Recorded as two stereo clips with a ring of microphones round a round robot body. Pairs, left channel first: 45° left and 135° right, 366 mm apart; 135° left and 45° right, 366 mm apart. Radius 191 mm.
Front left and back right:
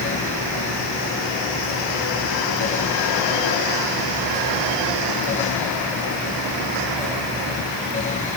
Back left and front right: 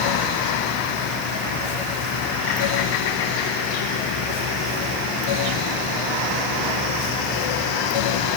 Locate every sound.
Only background noise.